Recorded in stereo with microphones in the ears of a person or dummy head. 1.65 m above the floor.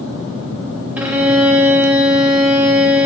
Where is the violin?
10° right (ahead or behind), 0.5 m.